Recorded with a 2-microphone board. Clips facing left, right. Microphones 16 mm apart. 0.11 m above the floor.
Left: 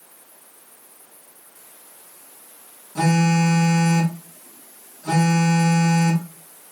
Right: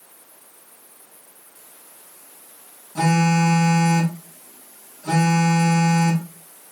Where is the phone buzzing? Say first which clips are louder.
Even; 20° right (ahead or behind), 9 m.